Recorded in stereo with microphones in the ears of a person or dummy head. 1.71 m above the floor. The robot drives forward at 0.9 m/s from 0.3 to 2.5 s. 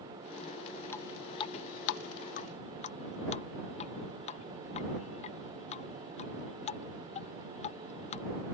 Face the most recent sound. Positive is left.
turn(degrees=30)  # may be behind; listen again after turning